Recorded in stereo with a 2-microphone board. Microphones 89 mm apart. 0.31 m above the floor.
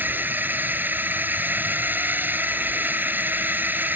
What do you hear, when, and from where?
0.0 s a drone: 20° right (ahead or behind)